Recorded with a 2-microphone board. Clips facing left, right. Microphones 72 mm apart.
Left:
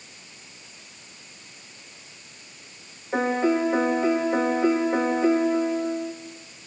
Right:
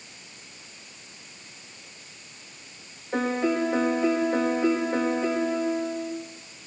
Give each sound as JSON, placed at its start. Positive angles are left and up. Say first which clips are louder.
{"t": 3.1, "sound": "a piano", "louder": "left 3 dB", "side_deg": 10, "distance_m": 3.5}